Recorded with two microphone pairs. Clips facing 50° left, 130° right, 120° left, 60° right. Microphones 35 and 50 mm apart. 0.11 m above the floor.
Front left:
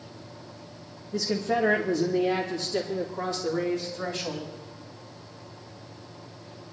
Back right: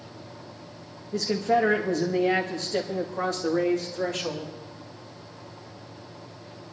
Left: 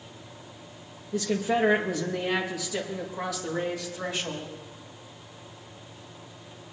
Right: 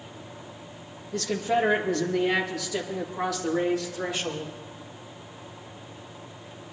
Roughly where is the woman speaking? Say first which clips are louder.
Back right 3 dB, even; behind right.